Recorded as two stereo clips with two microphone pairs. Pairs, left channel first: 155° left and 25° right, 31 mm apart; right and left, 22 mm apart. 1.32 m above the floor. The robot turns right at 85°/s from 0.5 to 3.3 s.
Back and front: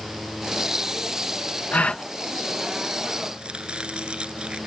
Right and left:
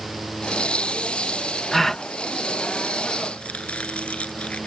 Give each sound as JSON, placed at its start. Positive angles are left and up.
{"t": 1.7, "sound": "a gasp", "azimuth_deg": -170}
{"t": 3.4, "sound": "chopping", "azimuth_deg": -80}